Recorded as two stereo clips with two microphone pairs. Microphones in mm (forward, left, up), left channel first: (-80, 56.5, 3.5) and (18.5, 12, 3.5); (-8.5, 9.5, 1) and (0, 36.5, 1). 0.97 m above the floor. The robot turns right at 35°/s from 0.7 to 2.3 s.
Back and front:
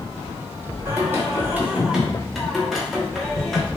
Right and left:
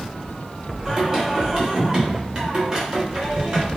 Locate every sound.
0.8 s singing: 25° left, 0.7 m; by 3.7 s 75° left, 0.7 m